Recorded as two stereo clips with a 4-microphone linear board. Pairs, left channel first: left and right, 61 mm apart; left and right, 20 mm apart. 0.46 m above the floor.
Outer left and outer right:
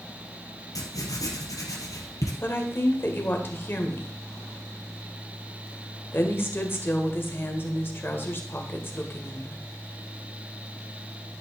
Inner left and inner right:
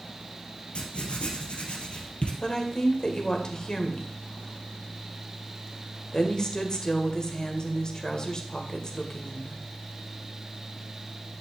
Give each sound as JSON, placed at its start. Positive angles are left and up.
{"t": 0.8, "sound": "writing", "side_deg": 65, "distance_m": 2.5}
{"t": 2.4, "sound": "a woman speaking", "side_deg": 35, "distance_m": 1.9}